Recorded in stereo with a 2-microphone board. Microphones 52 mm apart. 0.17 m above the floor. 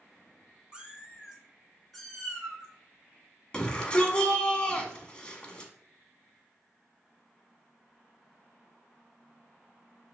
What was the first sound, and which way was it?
A cat meowing, 20° right (ahead or behind).